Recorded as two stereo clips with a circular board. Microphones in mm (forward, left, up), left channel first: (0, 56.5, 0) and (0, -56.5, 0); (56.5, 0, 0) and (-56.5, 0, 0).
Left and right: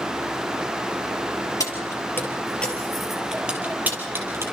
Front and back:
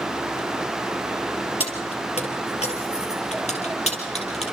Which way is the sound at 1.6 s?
35° left.